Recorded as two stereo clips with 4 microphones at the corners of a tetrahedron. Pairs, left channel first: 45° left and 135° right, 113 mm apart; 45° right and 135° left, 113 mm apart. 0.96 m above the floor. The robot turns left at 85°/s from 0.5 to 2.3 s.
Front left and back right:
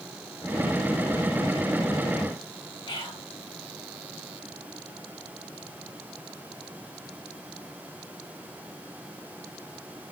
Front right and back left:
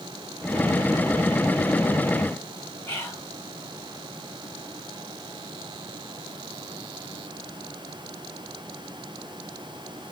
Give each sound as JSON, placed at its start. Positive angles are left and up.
{"t": 2.9, "sound": "whispering", "azimuth_deg": 20, "distance_m": 1.6}